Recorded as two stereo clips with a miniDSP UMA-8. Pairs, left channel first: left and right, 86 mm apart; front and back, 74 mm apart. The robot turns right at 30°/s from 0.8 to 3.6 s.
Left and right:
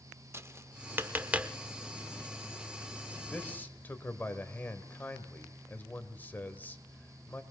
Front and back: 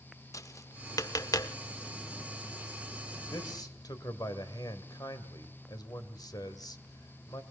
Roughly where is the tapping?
Ahead right.